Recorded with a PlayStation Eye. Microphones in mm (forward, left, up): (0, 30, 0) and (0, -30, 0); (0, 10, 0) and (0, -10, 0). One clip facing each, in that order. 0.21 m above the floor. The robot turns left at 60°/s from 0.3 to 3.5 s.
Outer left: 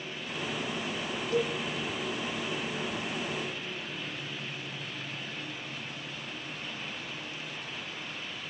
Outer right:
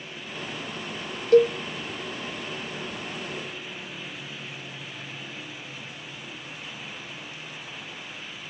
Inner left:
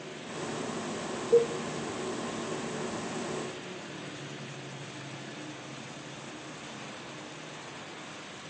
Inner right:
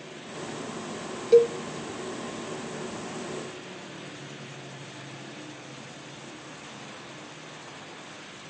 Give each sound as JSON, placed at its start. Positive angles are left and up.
{"t": 1.3, "sound": "a cowbell", "side_deg": -60, "distance_m": 0.9}